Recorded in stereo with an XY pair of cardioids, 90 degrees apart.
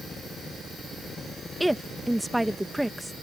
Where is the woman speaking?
10° right.